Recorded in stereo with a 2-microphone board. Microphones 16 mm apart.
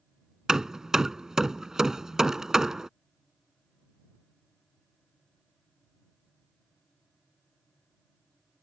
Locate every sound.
0.5 s hammering: 35° right (ahead or behind)